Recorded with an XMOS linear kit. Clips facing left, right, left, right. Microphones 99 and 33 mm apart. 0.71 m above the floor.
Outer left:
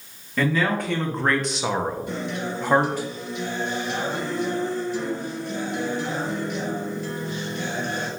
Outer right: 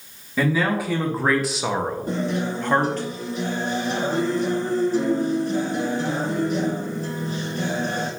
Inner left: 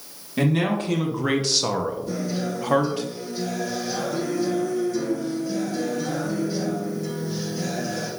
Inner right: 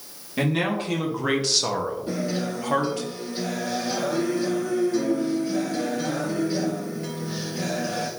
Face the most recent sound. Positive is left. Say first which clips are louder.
# outer right 4 dB, even
turn(degrees=-40)  # may be behind; listen again after turning